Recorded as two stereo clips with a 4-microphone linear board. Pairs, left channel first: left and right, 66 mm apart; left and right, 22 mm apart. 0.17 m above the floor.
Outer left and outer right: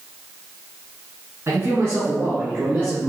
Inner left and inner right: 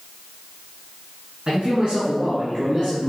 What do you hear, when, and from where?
1.5 s a man speaking: 45° right (ahead or behind), 1.7 m; by 3.1 s 30° right (ahead or behind), 2.5 m